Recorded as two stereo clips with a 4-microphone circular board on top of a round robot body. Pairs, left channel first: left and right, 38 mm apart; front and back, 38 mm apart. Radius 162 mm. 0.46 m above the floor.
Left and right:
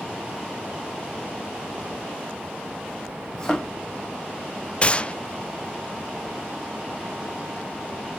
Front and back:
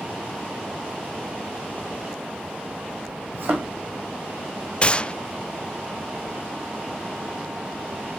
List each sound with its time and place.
3.3 s a thud: 160° left, 4 m
4.8 s a gunshot: 45° left, 0.5 m